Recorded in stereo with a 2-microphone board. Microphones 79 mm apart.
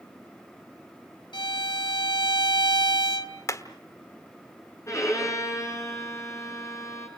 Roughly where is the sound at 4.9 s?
Left.